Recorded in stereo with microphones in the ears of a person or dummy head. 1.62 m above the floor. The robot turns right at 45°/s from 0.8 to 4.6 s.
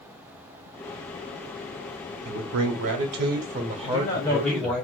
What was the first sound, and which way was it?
A man speaking, 105° right.